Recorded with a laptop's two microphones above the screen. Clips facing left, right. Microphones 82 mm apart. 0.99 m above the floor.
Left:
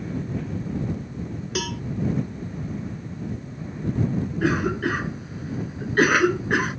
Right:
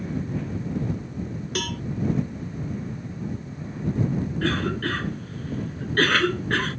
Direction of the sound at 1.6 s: 5° left (ahead or behind).